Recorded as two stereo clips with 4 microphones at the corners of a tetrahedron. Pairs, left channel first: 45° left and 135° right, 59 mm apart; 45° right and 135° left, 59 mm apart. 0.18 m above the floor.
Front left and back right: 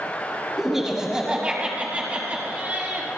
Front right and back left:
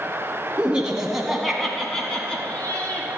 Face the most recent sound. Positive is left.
turn(degrees=-95)